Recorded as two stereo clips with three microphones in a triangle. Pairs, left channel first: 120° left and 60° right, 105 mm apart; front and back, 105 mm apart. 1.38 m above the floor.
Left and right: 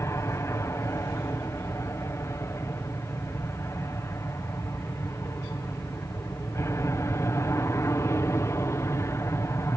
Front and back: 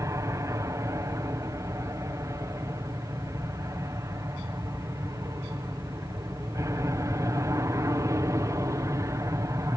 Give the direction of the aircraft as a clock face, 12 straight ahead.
7 o'clock.